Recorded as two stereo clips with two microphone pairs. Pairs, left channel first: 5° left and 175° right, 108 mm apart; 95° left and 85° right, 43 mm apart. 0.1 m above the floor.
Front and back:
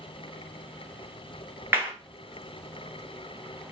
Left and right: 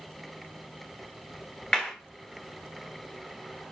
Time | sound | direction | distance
1.7 | a clap | 150° left | 1.0 m